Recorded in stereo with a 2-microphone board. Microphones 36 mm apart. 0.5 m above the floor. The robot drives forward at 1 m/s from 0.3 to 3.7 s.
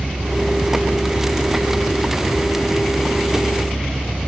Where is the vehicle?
70° right (ahead or behind); by 4.3 s 55° right (ahead or behind).